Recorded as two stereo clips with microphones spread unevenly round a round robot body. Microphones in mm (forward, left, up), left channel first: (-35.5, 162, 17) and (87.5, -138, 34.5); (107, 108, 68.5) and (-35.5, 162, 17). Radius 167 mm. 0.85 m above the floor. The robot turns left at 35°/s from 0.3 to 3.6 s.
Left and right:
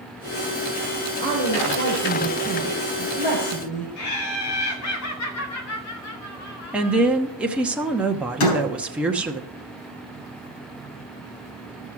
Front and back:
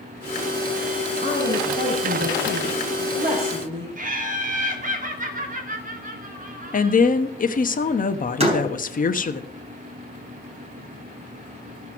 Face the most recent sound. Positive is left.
turn(degrees=110)